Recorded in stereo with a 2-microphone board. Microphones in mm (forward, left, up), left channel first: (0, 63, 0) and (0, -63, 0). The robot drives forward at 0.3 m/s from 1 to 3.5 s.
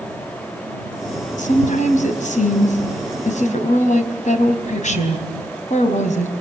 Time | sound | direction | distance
1.4 | a woman speaking | 70° left (ahead or behind) | 4 m